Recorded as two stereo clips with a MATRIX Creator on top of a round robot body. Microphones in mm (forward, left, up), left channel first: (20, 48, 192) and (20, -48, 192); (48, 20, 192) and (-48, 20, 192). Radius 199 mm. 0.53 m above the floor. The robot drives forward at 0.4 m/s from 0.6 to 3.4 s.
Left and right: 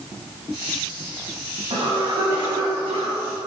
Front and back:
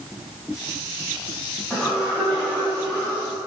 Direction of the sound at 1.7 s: 85° right.